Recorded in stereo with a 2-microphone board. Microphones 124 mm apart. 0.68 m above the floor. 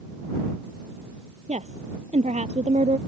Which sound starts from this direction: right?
A woman speaking, at 1.5 s.